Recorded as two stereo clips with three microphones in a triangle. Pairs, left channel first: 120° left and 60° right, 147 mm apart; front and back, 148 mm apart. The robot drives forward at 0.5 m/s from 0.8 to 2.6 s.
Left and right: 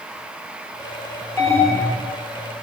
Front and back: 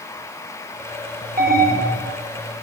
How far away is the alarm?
About 3.5 m.